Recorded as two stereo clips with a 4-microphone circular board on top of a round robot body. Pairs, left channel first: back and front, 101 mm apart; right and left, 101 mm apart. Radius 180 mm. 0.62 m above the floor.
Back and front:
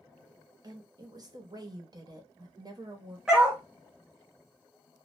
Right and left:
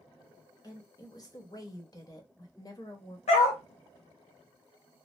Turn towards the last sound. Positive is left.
turn(degrees=-85)